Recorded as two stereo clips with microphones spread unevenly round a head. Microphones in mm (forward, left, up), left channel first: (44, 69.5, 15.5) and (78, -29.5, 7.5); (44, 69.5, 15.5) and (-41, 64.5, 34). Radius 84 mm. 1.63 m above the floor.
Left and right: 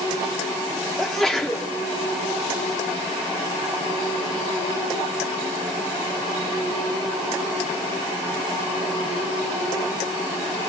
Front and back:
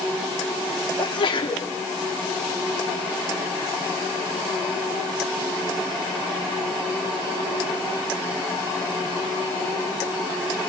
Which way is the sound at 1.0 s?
25° left.